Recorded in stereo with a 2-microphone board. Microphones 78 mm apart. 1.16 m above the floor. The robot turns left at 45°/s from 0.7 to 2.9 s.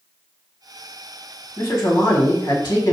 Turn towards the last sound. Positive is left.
turn(degrees=70)